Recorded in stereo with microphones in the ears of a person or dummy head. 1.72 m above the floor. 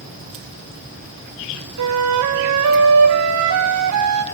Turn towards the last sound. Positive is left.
turn(degrees=-85)